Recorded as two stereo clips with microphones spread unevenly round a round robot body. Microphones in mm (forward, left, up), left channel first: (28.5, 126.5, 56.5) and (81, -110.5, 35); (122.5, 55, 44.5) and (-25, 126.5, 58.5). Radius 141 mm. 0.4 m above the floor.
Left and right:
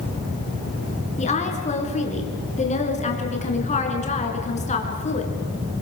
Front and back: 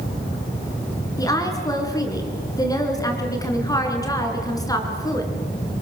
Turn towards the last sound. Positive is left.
turn(degrees=40)